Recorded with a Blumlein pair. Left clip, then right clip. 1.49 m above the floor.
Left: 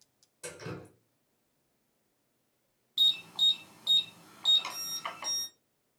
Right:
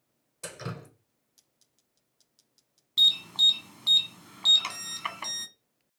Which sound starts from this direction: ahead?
An alarm, at 3.0 s.